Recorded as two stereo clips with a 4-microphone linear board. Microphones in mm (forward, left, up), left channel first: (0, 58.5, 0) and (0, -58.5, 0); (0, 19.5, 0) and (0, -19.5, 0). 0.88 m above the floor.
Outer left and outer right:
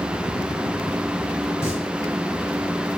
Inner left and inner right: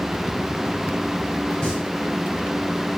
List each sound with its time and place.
1.6 s singing: 25° left (ahead or behind), 6.5 m